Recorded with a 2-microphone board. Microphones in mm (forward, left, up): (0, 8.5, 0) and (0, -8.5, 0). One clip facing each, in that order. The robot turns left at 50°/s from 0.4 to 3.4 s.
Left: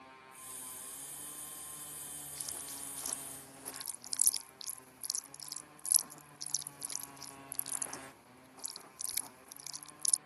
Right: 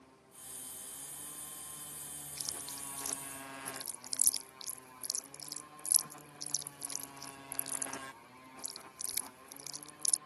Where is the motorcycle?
65° left (ahead or behind); by 10.3 s 85° right.